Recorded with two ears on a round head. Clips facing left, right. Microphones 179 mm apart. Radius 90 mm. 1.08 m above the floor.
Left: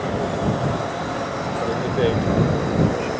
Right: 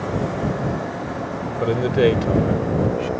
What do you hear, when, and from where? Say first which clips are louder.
1.6 s a man speaking: right 4 dB; 35° right (ahead or behind); by 3.1 s 10° right (ahead or behind)